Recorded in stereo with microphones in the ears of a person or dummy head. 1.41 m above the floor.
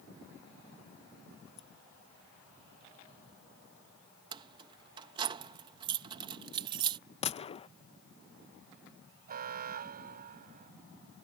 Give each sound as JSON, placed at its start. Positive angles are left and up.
{"t": 1.6, "sound": "scissors", "side_deg": 45}
{"t": 4.3, "sound": "keys jangling", "side_deg": -30}
{"t": 7.2, "sound": "a gunshot", "side_deg": 40}
{"t": 9.3, "sound": "an alarm", "side_deg": -40}